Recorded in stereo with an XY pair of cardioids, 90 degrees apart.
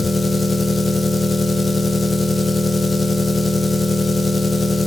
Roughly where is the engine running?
Ahead left.